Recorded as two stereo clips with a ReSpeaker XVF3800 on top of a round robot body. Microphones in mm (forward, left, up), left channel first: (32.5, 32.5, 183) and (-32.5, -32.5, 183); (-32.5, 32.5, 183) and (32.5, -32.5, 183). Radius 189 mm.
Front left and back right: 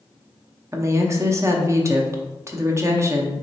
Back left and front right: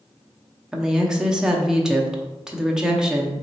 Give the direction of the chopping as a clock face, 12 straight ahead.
I don't hear chopping.